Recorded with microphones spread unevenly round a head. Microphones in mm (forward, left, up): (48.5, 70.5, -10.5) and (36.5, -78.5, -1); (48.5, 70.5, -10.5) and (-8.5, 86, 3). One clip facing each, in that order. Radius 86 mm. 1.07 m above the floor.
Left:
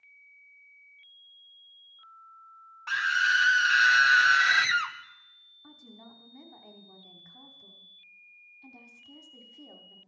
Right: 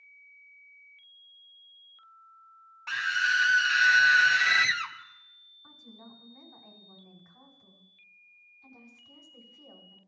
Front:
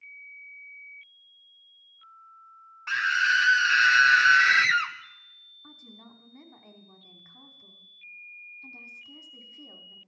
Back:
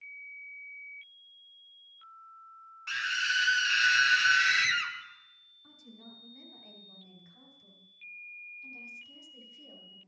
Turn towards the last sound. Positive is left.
turn(degrees=30)